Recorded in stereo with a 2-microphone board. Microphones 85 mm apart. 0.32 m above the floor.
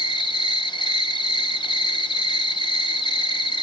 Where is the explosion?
I don't hear an explosion.